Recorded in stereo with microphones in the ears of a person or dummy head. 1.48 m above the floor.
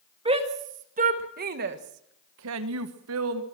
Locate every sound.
0.2 s a shout: 25° right (ahead or behind), 2 m; by 3.4 s 70° right (ahead or behind), 1.4 m